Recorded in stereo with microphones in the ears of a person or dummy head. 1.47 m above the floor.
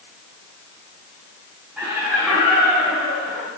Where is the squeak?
No squeak in this recording.